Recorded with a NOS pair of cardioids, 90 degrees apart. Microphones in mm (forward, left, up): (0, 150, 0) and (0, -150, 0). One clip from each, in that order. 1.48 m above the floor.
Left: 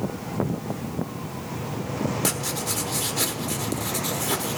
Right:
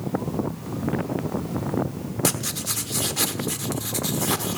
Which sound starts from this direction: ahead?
Writing, at 2.2 s.